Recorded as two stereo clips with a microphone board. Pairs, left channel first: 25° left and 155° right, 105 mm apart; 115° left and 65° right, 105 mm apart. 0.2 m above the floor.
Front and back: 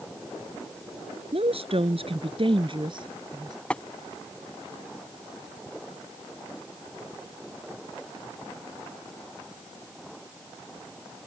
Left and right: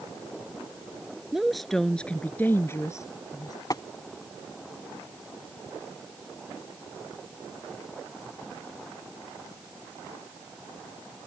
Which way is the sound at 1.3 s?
155° right.